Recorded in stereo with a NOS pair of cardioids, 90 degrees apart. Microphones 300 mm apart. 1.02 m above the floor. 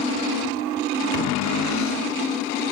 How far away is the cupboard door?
About 0.6 m.